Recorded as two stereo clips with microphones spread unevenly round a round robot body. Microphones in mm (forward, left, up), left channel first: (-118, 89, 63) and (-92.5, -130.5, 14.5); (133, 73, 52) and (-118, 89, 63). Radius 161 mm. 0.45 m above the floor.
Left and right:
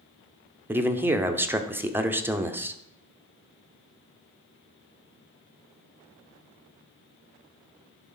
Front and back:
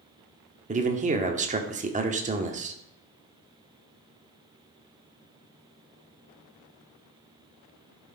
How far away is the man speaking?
About 0.9 m.